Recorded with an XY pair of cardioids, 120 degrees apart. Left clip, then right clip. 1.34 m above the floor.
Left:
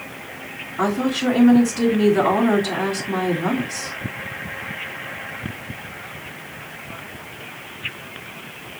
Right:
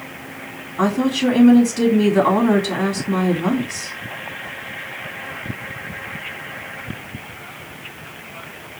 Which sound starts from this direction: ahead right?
A woman speaking, at 0.8 s.